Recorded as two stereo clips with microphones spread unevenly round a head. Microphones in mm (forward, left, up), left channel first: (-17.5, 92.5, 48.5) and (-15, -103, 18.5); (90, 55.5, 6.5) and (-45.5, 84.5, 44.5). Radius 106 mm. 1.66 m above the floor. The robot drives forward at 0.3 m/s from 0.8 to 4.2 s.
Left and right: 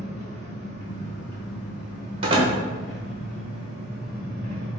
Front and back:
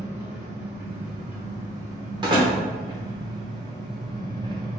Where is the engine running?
105° left, 2 m; by 4.8 s 135° left, 2.5 m.